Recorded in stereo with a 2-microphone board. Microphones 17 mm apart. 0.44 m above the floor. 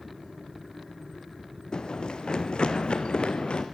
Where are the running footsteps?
55° left (ahead or behind), 1.6 m; by 3.6 s 80° left, 2.5 m.